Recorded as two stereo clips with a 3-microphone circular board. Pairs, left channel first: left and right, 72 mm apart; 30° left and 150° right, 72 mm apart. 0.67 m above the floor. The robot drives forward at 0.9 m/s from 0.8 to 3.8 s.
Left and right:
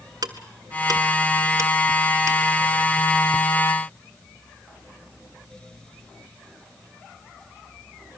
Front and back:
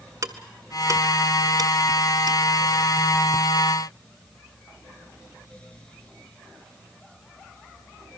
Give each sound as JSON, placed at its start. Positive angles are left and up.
{"t": 0.2, "sound": "ticking", "azimuth_deg": -115, "distance_m": 1.5}